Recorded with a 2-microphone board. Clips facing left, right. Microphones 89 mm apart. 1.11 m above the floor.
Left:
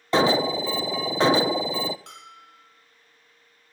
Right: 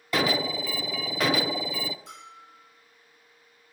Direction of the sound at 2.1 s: 75° left (ahead or behind).